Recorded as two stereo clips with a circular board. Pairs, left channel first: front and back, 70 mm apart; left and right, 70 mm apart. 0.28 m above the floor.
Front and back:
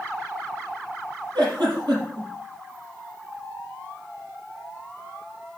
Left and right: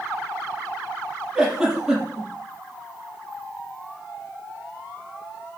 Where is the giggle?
175° right, 5.5 m.